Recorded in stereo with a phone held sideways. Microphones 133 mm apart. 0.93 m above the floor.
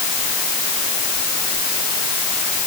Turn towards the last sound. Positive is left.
No sound to turn to.